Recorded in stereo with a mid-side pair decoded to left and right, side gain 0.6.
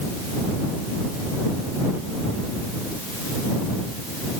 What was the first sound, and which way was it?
Only background noise.